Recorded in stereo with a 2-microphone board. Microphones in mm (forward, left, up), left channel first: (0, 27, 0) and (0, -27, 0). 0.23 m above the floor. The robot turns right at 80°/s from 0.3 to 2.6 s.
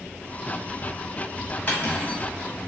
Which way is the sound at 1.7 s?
85° left.